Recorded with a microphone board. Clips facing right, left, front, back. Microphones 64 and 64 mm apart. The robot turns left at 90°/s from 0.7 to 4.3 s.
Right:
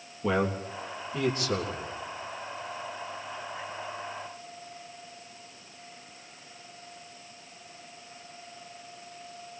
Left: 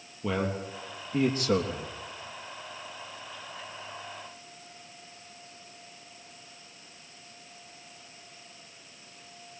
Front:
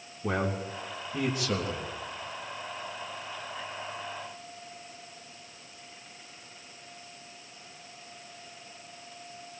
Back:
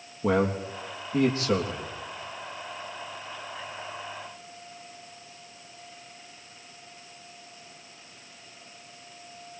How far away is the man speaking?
About 3.5 m.